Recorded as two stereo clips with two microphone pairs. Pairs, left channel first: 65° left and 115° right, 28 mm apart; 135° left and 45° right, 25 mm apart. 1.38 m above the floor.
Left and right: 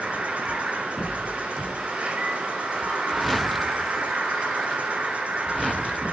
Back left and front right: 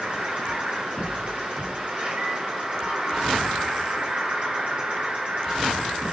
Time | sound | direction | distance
0.0 | an insect | 80° right | 7 m